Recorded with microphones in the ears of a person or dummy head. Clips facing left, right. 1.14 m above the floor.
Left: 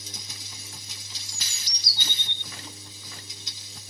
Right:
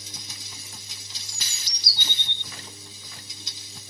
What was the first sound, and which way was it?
A bird, 25° right (ahead or behind).